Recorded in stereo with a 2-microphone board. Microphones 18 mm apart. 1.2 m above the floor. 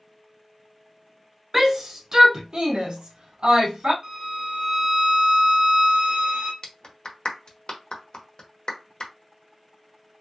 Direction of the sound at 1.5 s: 20° right (ahead or behind).